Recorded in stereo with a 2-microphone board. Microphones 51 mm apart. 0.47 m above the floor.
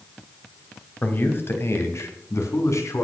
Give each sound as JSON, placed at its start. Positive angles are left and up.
{"t": 1.0, "sound": "a man speaking", "side_deg": 40, "distance_m": 2.0}